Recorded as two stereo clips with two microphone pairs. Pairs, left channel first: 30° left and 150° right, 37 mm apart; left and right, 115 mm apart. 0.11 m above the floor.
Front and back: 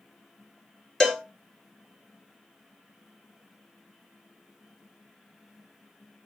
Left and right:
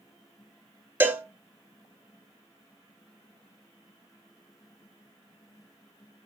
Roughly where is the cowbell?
Ahead right.